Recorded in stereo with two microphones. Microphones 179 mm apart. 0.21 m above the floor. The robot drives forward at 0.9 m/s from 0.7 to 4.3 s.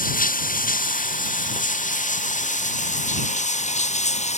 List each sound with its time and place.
0.0 s running water: 50° left (ahead or behind); by 4.4 s 40° left (ahead or behind)